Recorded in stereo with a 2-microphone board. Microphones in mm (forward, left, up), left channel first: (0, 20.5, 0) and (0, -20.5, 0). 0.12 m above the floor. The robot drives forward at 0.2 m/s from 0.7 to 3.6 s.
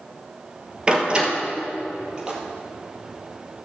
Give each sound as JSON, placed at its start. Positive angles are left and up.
{"t": 0.9, "sound": "a door slam", "side_deg": -20, "distance_m": 2.0}
{"t": 2.2, "sound": "a splash", "side_deg": -20, "distance_m": 2.0}